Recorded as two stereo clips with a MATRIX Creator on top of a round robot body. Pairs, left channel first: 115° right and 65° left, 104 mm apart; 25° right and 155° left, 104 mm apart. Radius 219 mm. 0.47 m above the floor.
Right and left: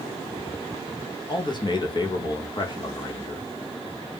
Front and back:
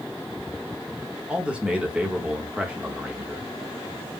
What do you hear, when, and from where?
1.3 s a man speaking: 125° right, 1.2 m